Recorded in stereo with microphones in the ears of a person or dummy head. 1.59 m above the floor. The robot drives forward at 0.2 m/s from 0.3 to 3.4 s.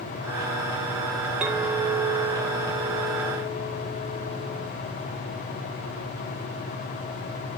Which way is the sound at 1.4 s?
5° right (ahead or behind).